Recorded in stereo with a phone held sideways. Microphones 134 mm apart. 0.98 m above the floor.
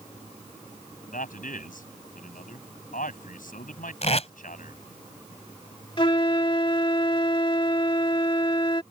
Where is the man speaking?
85° left.